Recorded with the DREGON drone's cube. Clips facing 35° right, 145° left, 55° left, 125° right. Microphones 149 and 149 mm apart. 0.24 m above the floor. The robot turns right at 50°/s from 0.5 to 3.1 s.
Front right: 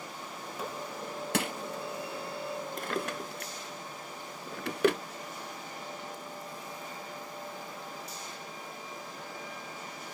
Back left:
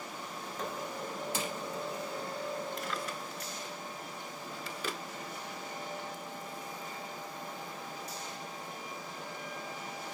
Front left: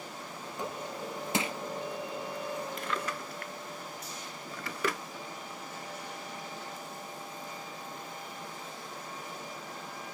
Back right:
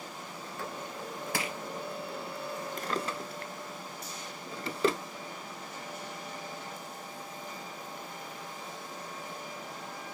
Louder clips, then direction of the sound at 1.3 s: Front right 8 dB, front left 4 dB; 10° right.